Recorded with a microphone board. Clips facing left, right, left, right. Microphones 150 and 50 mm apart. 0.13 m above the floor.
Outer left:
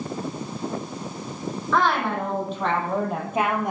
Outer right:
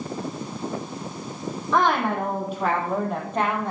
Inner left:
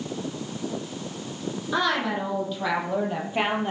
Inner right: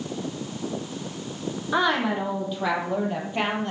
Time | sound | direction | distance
1.7 | a woman speaking | 20° right (ahead or behind) | 4 m